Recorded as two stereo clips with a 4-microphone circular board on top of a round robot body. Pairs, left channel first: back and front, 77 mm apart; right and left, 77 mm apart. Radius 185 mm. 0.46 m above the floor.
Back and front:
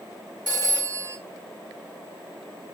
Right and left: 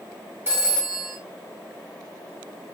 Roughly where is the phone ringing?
Ahead left.